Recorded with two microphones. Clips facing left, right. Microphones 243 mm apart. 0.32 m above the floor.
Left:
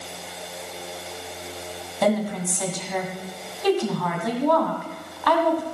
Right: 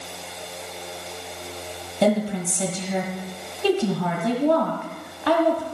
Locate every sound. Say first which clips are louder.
2.0 s a woman speaking: right 2 dB; 30° right (ahead or behind), 1.9 m